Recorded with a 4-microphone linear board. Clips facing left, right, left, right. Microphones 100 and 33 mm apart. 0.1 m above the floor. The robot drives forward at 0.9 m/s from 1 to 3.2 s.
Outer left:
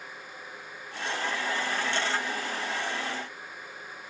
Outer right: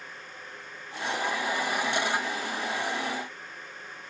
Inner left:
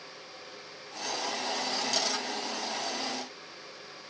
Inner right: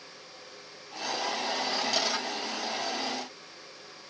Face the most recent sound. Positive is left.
No sound to turn to.